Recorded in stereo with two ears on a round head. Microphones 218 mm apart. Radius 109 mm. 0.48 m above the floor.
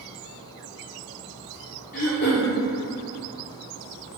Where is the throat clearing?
35° left (ahead or behind), 2 m.